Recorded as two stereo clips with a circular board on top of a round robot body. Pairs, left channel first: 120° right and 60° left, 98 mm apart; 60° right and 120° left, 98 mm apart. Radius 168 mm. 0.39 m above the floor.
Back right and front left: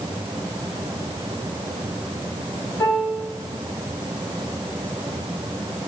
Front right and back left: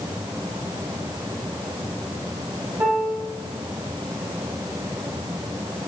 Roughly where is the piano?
Behind.